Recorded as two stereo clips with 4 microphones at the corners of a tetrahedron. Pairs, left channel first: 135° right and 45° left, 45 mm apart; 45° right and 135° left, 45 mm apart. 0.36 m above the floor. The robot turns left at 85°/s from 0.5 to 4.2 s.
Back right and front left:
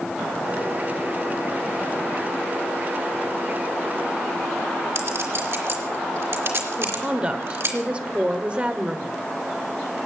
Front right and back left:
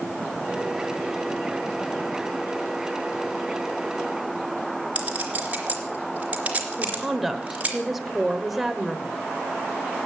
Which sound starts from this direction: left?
A clink, at 5.0 s.